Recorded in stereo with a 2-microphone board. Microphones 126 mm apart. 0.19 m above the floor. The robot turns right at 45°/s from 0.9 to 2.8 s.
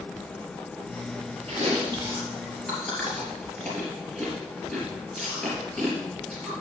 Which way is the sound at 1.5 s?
50° right (ahead or behind).